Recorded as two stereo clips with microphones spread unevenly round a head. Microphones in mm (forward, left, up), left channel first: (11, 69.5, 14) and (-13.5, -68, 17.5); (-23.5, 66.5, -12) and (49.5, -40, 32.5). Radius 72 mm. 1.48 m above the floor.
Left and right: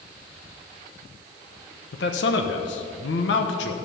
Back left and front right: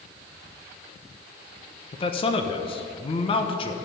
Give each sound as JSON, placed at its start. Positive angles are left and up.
{"t": 1.9, "sound": "a man speaking", "azimuth_deg": 70, "distance_m": 1.1}